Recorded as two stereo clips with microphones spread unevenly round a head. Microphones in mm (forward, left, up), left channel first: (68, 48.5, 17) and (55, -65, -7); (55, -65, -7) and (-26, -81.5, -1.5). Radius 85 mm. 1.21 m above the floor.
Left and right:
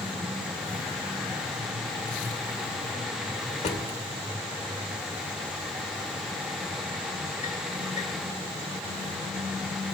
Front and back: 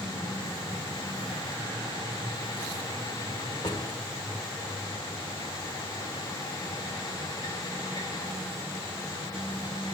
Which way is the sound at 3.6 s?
70° left.